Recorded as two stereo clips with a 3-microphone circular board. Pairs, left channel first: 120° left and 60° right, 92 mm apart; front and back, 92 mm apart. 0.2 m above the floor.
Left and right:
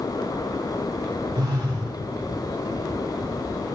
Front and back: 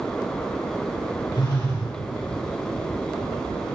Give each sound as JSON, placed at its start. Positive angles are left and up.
{"t": 1.3, "sound": "a phone buzzing", "azimuth_deg": -25, "distance_m": 3.0}